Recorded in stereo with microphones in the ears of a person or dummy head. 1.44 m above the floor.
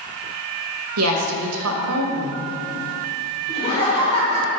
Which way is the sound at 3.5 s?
30° left (ahead or behind).